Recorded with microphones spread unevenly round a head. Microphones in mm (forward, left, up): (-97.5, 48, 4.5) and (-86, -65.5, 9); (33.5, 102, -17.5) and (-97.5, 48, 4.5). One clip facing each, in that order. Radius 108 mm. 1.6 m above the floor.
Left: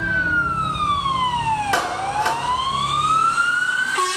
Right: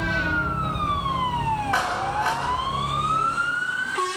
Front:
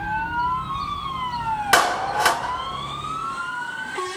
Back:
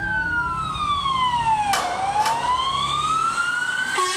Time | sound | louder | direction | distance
1.7 | a clap | left 3 dB, front 1 dB | 45° left | 2.0 m